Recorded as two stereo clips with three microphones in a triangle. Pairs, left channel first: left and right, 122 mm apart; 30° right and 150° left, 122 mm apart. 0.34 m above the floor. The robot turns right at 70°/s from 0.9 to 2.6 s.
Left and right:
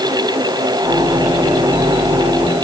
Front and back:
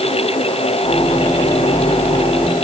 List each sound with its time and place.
Only background noise.